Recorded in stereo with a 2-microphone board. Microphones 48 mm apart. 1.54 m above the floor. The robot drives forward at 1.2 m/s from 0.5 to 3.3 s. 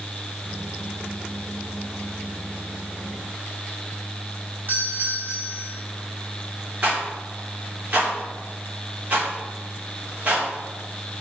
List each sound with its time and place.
4.7 s a doorbell: 40° right (ahead or behind), 2.5 m
6.8 s a rattle: 30° right (ahead or behind), 3 m